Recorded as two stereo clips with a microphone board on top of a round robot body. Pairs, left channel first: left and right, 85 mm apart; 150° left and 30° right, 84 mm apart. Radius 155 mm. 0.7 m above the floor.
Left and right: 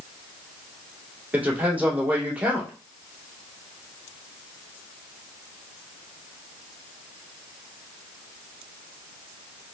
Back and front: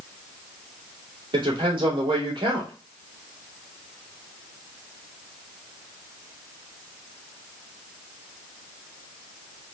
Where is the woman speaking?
20° right, 2 m.